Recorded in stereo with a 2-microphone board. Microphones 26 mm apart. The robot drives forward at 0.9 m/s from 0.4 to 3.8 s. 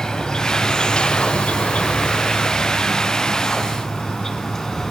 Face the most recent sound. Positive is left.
turn(degrees=15)  # may be behind; listen again after turning